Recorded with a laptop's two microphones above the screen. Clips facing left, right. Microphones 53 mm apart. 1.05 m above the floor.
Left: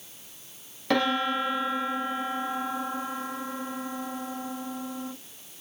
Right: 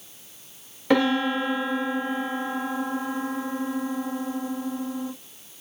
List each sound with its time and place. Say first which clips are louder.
0.9 s a piano: right 4 dB; 10° right (ahead or behind), 1.3 m